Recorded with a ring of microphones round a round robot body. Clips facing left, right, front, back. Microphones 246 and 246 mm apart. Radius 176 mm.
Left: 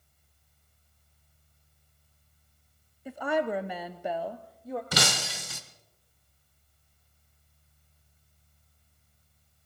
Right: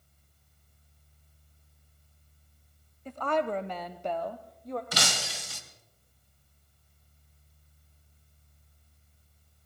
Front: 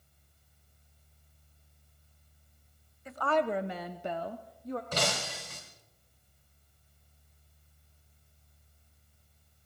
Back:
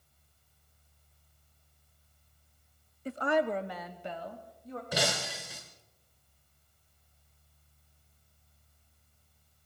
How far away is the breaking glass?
About 1.1 m.